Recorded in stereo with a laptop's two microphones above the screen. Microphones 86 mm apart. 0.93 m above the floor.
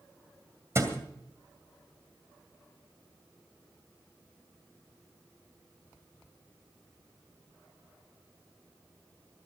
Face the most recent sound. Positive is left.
turn(degrees=-35)  # may be behind; listen again after turning